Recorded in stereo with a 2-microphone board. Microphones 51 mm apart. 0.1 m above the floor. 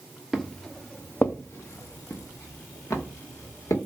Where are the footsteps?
Centre (ahead or behind), 0.7 m; by 3.8 s 85° left, 1.6 m.